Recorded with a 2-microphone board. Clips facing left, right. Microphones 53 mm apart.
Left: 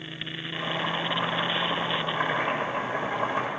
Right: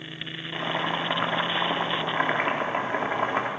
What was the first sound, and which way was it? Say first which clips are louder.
Boiling: right 2 dB; 50° right (ahead or behind).